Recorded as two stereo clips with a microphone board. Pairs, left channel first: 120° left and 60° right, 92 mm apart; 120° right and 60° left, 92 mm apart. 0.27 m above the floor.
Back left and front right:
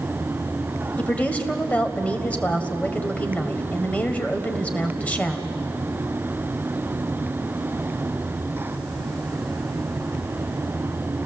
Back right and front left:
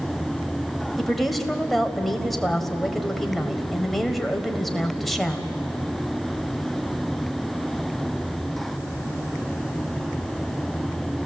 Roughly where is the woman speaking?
Behind left.